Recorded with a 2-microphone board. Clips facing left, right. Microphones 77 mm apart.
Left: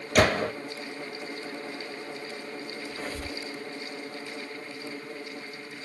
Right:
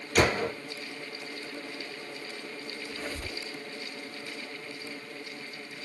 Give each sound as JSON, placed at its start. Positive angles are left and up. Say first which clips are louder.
{"t": 0.1, "sound": "a gunshot", "louder": "left 3 dB", "side_deg": 80, "distance_m": 1.2}
{"t": 2.9, "sound": "a squeak", "louder": "left 1 dB", "side_deg": 35, "distance_m": 1.3}